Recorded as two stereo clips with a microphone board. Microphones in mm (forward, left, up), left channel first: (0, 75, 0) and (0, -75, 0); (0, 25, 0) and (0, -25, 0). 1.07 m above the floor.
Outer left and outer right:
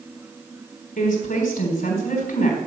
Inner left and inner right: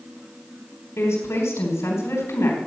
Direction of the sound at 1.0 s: 75° left (ahead or behind).